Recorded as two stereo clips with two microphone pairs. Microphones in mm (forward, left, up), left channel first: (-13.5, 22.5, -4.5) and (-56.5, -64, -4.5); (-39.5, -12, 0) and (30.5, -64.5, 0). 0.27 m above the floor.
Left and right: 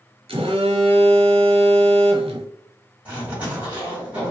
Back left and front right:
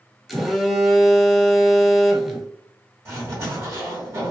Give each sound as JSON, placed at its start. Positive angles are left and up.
{"t": 0.3, "sound": "a phone buzzing", "azimuth_deg": -120, "distance_m": 0.7}
{"t": 3.0, "sound": "a zipper", "azimuth_deg": -55, "distance_m": 1.8}